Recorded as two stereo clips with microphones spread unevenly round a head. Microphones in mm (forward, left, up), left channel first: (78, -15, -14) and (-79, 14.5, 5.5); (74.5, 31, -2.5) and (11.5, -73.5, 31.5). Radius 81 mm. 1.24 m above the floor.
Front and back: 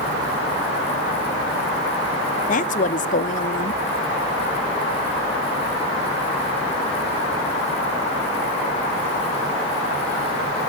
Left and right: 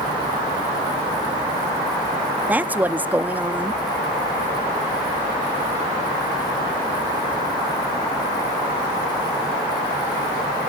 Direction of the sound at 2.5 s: 35° right.